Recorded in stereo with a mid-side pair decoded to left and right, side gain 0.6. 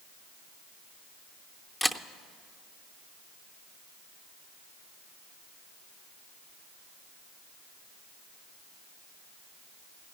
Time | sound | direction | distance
1.8 | a camera shutter | 10° left | 0.7 m